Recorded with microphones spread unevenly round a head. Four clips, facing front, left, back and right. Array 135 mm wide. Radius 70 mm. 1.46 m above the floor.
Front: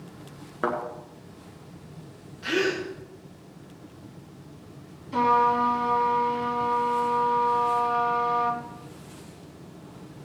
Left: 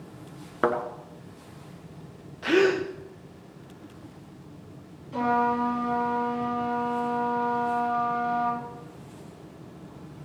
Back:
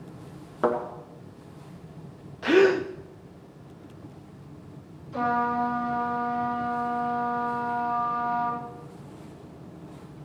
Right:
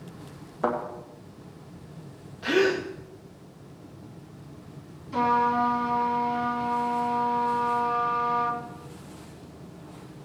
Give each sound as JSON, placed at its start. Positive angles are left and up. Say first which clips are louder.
{"t": 0.6, "sound": "a thud", "louder": "left 2 dB, back 3 dB", "azimuth_deg": 100, "distance_m": 1.7}
{"t": 2.4, "sound": "a gasp", "louder": "left 2 dB, back 7 dB", "azimuth_deg": 170, "distance_m": 0.7}
{"t": 5.1, "sound": "a trumpet", "louder": "right 1 dB, front 5 dB", "azimuth_deg": -15, "distance_m": 6.0}